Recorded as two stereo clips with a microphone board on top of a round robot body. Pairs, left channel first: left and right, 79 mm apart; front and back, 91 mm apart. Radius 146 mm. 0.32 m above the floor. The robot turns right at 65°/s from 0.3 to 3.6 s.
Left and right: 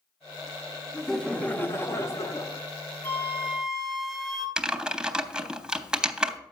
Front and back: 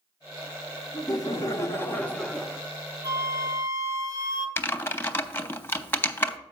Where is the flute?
145° left, 1.7 m; by 4.5 s 175° right, 1.7 m.